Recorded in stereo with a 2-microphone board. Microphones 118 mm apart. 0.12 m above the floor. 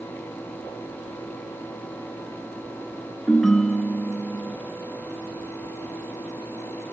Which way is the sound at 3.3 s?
5° left (ahead or behind).